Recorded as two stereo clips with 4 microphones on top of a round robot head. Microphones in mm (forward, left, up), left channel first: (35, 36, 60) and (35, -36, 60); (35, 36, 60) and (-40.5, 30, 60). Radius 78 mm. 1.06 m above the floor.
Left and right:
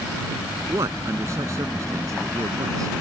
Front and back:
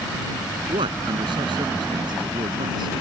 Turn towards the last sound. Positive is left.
turn(degrees=-140)